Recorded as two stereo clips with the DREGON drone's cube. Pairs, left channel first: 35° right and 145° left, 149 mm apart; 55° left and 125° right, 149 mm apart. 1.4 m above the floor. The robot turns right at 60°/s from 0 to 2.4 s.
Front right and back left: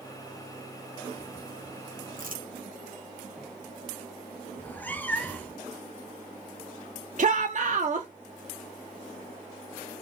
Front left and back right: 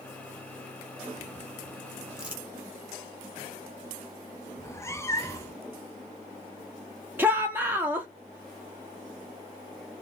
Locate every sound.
2.2 s crumpling: 150° left, 1.1 m; by 2.5 s 160° left, 1.1 m
4.6 s a cat meowing: 25° left, 0.5 m
7.2 s a shout: 160° left, 0.5 m